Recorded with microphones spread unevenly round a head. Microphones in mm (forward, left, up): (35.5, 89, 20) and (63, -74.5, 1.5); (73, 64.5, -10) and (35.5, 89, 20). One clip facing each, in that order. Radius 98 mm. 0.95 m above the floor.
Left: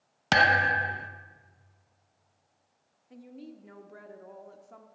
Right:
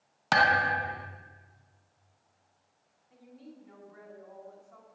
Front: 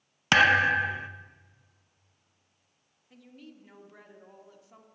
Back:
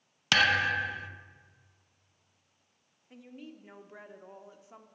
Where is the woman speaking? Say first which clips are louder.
Left 5 dB, back 3 dB; 80° left, 1.1 m.